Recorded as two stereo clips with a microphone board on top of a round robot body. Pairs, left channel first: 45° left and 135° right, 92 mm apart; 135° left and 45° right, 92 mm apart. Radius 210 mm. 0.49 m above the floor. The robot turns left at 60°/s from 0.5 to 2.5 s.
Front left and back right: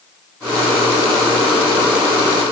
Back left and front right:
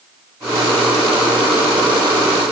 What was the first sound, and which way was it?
Only background noise.